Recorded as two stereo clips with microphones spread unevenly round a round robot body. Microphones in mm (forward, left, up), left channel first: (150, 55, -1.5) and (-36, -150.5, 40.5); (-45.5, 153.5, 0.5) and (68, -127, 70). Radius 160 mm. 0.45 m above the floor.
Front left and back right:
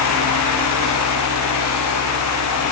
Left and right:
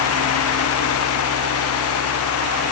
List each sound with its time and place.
Only background noise.